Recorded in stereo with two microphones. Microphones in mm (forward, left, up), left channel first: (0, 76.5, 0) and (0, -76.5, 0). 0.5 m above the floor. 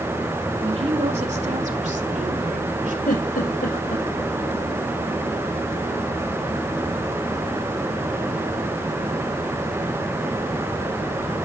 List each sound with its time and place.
0.6 s a woman speaking: 45° right (ahead or behind), 2.0 m; by 3.0 s 70° right (ahead or behind), 2.5 m
3.1 s a giggle: 75° left (ahead or behind), 5.5 m